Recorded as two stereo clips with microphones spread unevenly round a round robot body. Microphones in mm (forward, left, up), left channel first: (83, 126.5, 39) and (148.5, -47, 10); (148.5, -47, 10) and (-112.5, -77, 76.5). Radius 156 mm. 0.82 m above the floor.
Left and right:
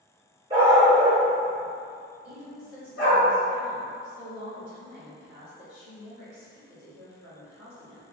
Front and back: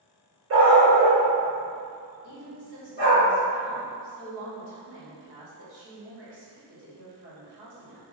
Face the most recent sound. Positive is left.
turn(degrees=155)